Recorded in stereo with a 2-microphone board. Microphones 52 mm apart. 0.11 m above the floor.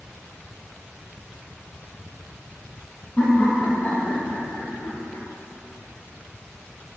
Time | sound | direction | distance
3.2 | laughter | 25° left (ahead or behind) | 4 m